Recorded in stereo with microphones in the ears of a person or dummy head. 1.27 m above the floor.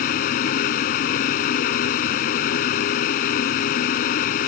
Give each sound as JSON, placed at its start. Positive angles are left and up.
{"t": 0.0, "sound": "a fan", "side_deg": 50}